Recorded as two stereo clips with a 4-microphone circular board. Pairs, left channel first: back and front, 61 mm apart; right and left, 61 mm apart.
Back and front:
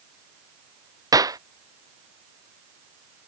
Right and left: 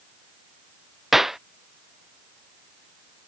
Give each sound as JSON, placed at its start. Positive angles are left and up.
{"t": 1.1, "sound": "a clap", "azimuth_deg": 5}